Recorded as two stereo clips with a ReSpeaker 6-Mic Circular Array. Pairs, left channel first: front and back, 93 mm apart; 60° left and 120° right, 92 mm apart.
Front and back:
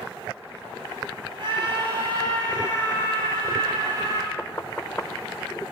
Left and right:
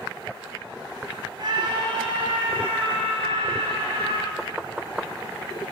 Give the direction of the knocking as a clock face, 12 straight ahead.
1 o'clock.